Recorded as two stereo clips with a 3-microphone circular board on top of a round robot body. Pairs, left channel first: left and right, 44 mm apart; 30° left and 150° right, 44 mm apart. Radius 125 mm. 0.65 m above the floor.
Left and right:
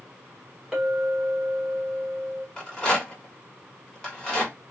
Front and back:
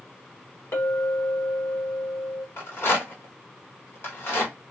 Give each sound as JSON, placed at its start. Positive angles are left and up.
{"t": 0.7, "sound": "a clink", "azimuth_deg": -10, "distance_m": 1.5}
{"t": 2.6, "sound": "a rattle", "azimuth_deg": 15, "distance_m": 1.8}